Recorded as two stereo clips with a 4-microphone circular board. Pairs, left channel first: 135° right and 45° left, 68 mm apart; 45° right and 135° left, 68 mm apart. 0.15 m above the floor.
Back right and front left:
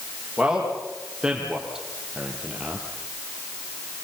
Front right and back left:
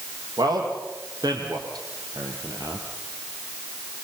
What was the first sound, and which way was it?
A man speaking, 125° left.